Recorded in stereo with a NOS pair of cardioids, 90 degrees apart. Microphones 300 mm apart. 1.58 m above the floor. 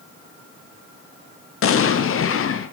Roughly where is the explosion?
Ahead left.